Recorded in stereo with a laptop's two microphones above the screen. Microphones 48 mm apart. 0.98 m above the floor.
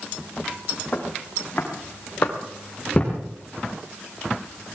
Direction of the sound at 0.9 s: 45° left (ahead or behind).